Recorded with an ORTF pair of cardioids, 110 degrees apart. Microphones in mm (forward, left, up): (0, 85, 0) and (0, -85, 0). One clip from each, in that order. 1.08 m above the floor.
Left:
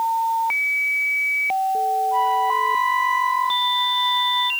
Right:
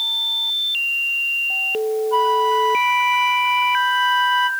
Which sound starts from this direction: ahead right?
A flute, at 2.1 s.